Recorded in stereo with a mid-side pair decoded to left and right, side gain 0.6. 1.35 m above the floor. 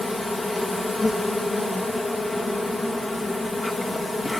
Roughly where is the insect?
Ahead.